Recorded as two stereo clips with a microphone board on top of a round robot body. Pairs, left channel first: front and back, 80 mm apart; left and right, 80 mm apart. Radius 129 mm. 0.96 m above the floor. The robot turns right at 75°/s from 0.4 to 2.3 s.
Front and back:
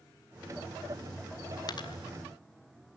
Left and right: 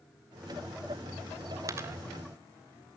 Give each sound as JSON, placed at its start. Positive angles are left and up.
{"t": 1.7, "sound": "a dropped coin", "azimuth_deg": -40, "distance_m": 1.5}